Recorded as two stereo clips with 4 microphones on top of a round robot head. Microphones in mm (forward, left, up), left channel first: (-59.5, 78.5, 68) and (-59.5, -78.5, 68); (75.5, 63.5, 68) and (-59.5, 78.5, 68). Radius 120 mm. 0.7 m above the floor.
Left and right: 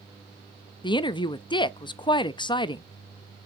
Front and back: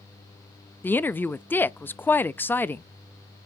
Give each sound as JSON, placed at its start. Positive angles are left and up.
{"t": 0.8, "sound": "a woman speaking", "azimuth_deg": 60, "distance_m": 0.5}